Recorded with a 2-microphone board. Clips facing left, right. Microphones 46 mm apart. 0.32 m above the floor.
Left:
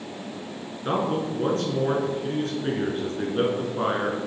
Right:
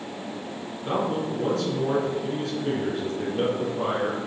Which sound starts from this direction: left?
A man speaking, at 0.8 s.